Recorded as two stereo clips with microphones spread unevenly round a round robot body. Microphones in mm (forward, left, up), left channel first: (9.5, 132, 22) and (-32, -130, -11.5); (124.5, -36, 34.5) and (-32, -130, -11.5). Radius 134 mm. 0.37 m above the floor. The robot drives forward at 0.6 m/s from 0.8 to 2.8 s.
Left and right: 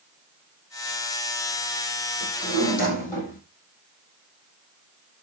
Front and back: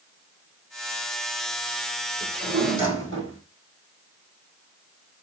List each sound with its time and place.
2.2 s a drawer: 140° left, 5 m